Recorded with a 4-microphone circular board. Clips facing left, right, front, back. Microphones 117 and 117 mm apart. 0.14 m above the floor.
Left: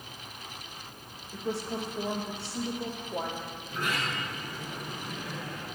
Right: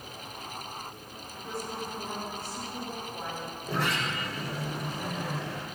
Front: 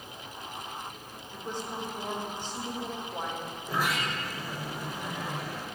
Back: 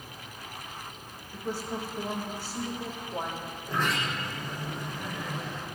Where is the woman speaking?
100° left, 8 m.